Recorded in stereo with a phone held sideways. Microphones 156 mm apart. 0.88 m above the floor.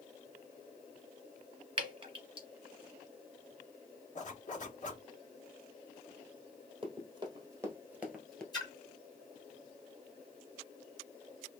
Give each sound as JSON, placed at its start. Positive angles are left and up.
{"t": 1.8, "sound": "dripping", "side_deg": -35, "distance_m": 1.7}
{"t": 4.2, "sound": "a zipper", "side_deg": 55, "distance_m": 1.3}
{"t": 6.8, "sound": "running footsteps", "side_deg": -35, "distance_m": 1.7}
{"t": 8.5, "sound": "a splash", "side_deg": 25, "distance_m": 1.9}